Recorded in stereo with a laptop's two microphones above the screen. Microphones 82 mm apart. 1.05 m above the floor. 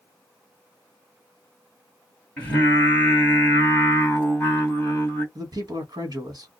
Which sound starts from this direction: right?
A man speaking, at 5.3 s.